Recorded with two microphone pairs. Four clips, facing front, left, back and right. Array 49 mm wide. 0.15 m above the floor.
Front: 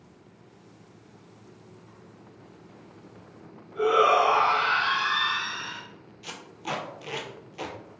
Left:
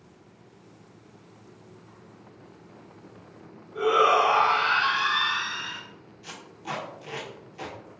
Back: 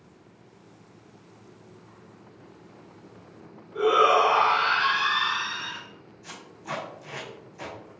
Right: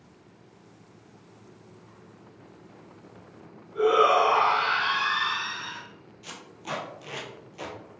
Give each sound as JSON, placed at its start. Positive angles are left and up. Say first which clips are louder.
{"t": 3.8, "sound": "a shout", "louder": "even, back 1 dB", "azimuth_deg": 155, "distance_m": 1.1}
{"t": 6.2, "sound": "tape being pulled", "louder": "left 1 dB, front 3 dB", "azimuth_deg": -15, "distance_m": 1.0}